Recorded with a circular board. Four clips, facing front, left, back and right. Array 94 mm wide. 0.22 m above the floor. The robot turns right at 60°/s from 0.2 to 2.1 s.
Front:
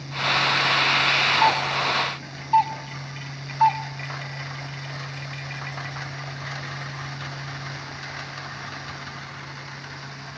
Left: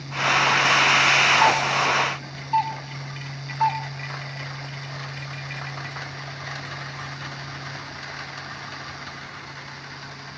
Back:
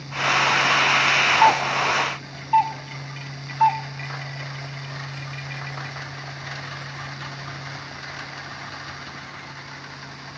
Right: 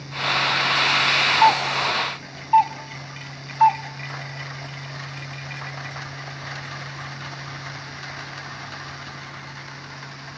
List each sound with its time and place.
1.4 s a doorbell: straight behind, 2 m; by 3.8 s 135° right, 2 m